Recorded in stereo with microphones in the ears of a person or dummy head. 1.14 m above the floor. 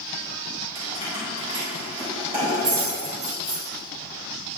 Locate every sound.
0.8 s keys jangling: 35° right (ahead or behind), 2.5 m; by 3.6 s 40° right (ahead or behind), 4.5 m